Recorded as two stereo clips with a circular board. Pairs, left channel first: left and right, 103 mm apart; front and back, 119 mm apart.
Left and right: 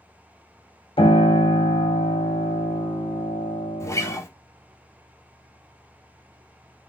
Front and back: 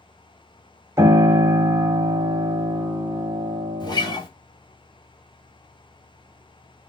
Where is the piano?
115° left, 0.7 m.